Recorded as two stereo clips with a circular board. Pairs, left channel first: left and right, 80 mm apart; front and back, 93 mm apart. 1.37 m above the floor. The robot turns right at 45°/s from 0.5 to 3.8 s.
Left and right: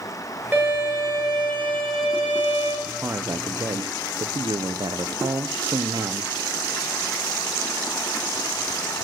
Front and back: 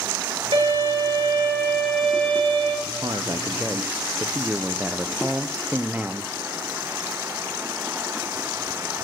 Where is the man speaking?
150° right, 0.8 m; by 6.3 s 110° right, 0.8 m.